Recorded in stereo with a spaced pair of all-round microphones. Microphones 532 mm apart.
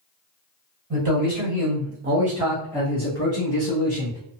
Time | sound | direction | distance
0.9 | a man speaking | 45° right (ahead or behind) | 1.2 m